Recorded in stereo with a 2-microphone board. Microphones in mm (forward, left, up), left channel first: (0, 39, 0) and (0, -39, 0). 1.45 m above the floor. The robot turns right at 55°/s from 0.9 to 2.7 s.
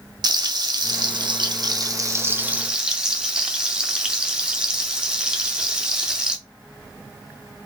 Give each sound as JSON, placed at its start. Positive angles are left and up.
{"t": 0.2, "sound": "frying", "azimuth_deg": -110, "distance_m": 0.7}